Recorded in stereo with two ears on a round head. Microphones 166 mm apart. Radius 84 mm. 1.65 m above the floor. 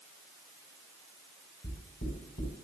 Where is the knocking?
45° left (ahead or behind), 4 m.